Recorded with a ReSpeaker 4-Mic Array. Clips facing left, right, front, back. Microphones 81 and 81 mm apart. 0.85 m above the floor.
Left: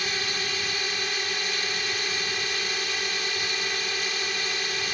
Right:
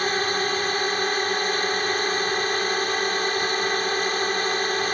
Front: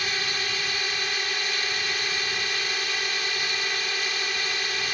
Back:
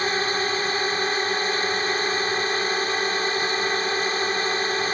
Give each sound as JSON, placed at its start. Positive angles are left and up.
{"t": 0.0, "sound": "a drone", "azimuth_deg": -130}